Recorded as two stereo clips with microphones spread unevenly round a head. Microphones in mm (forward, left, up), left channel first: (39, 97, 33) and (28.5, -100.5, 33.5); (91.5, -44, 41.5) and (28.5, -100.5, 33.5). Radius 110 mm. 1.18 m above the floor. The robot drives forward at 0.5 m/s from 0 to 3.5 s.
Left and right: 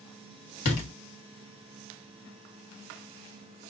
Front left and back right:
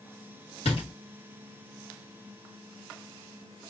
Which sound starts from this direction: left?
A door slam, at 0.7 s.